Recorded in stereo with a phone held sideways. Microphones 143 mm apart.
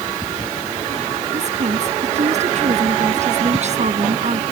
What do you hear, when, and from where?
1.3 s a woman speaking: 55° right (ahead or behind)